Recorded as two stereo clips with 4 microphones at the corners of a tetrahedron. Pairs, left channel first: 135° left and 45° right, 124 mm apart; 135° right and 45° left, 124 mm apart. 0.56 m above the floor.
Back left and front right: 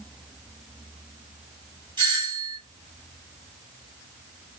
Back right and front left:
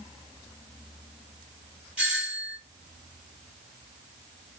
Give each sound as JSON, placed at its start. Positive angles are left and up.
{"t": 2.0, "sound": "a doorbell", "azimuth_deg": -35, "distance_m": 1.6}